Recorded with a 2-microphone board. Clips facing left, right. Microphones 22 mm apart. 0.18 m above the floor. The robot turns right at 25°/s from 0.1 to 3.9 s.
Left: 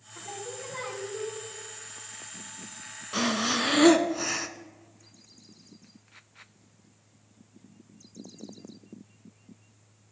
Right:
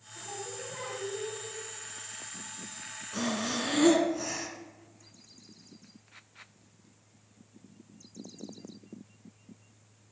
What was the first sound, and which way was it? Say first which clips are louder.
Singing: left 2 dB; 75° left.